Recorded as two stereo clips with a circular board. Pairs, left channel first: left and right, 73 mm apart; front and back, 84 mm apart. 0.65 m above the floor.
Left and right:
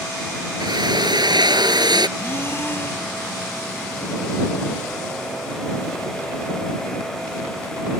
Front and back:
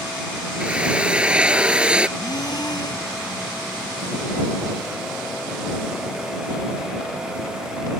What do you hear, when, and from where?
0.6 s a drill: 100° right
2.2 s breathing: 35° left